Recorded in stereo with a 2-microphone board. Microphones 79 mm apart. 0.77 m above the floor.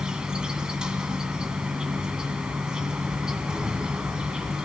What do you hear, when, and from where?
0.0 s an insect: 10° right (ahead or behind), 1.5 m